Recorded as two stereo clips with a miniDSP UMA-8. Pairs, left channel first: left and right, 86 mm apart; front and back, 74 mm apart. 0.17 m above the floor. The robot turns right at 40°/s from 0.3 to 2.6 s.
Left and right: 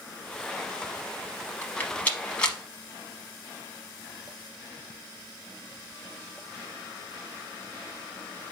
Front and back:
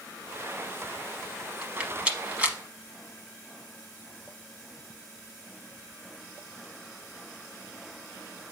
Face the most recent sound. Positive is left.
turn(degrees=155)